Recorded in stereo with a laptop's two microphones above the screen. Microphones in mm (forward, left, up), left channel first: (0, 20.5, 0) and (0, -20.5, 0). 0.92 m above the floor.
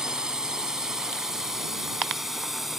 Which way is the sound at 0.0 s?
15° right (ahead or behind).